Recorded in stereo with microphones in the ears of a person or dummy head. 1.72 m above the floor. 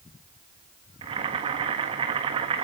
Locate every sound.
1.0 s boiling: 25° right (ahead or behind), 1.5 m